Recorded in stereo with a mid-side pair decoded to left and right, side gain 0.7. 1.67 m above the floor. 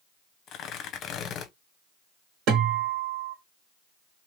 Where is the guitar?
55° right, 1.7 m.